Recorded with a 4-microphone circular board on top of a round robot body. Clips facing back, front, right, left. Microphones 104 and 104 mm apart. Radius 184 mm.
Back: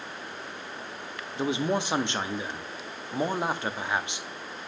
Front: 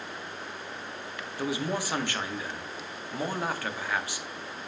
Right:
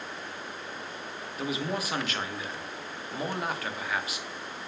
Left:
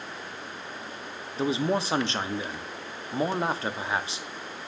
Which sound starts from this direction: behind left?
A man speaking, at 1.4 s.